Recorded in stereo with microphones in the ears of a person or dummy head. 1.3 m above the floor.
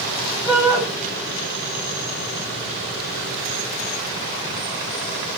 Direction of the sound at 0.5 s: 20° left (ahead or behind).